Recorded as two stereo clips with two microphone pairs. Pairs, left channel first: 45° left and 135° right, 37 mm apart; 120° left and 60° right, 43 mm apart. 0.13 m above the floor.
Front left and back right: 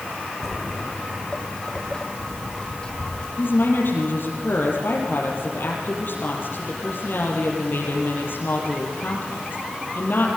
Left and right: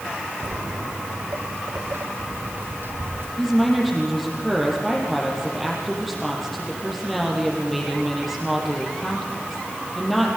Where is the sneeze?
No sneeze in this recording.